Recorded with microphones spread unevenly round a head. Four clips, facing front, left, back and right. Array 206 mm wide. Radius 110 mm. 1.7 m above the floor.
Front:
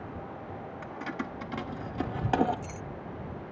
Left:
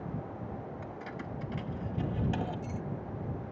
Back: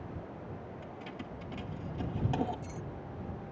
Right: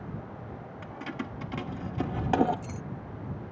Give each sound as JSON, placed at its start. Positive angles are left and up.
{"t": 0.8, "sound": "keys jangling", "azimuth_deg": -40}